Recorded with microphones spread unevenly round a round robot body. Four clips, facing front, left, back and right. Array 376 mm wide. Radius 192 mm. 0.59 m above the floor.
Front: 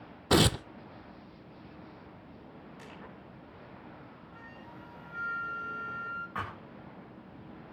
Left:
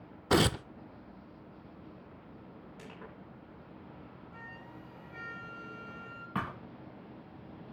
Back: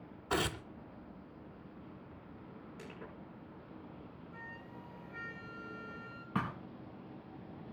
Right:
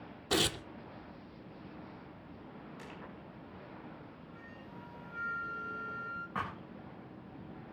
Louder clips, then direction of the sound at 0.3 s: Left 6 dB, front 10 dB; 30° left.